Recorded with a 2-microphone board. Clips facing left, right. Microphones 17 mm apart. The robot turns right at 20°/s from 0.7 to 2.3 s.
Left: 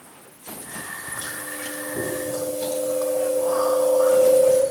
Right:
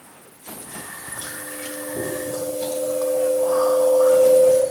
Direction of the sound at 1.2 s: Centre (ahead or behind).